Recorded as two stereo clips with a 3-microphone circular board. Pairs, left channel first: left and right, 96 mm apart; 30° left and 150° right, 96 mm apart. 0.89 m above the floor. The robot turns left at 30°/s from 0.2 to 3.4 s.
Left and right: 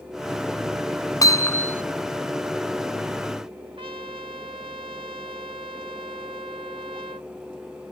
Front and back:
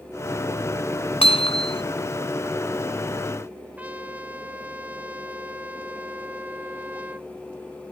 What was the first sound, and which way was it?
Hammering, 35° left.